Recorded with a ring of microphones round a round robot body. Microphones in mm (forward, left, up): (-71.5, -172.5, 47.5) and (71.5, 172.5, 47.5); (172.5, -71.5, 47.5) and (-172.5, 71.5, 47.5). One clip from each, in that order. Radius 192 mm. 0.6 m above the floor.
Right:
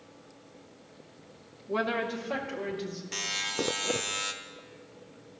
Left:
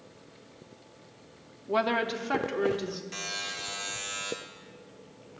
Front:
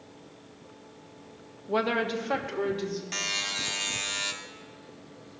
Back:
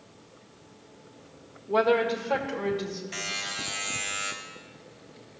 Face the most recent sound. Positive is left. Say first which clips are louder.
# right 6 dB, front 3 dB
turn(degrees=-45)